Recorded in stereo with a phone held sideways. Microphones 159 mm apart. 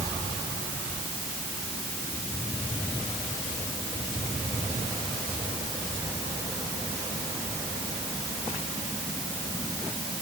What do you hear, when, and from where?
Only background noise.